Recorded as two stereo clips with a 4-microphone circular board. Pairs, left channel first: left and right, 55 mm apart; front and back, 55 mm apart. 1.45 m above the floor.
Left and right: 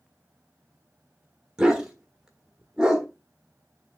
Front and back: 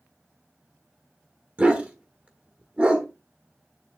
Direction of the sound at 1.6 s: 155° right.